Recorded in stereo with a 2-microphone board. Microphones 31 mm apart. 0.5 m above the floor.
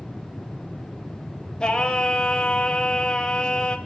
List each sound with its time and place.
1.6 s singing: 25° left (ahead or behind), 2 m